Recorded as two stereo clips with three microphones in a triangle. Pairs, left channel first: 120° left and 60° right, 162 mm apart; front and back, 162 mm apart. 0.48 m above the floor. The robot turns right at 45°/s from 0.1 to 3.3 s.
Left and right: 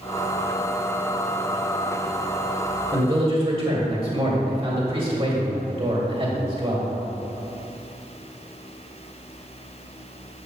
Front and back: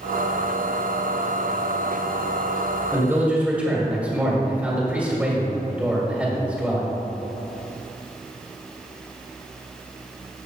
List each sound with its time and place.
2.9 s a man speaking: 120° right, 1.9 m; by 6.9 s 100° right, 1.9 m